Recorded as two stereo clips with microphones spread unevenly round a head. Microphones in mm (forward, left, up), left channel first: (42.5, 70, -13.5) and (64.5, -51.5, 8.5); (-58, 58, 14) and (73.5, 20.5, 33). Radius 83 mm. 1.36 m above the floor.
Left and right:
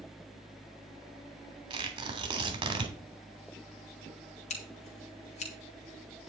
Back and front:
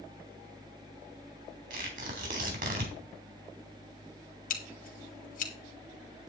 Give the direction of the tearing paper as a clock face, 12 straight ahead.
1 o'clock.